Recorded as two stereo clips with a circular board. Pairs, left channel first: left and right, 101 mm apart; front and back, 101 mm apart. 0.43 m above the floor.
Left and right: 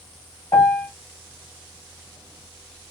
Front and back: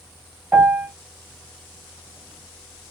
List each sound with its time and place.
0.5 s a piano: 115° left, 1.7 m